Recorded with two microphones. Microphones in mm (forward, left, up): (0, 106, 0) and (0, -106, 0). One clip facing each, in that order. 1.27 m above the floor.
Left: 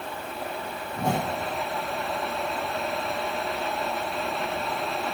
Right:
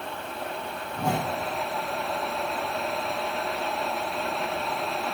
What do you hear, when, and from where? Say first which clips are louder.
0.9 s a whoosh: left 1 dB; 20° left (ahead or behind), 9 m